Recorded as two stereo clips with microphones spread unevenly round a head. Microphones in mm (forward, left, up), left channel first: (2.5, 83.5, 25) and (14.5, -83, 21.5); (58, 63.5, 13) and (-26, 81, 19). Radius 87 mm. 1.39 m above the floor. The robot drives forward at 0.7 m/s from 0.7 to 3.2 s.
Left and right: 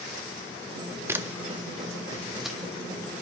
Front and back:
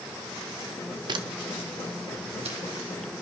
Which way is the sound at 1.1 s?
160° right.